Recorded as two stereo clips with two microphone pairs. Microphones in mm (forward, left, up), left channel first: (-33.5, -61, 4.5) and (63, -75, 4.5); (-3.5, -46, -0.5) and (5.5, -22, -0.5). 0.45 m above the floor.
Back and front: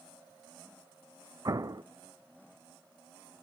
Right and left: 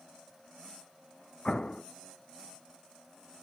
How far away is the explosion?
About 0.8 m.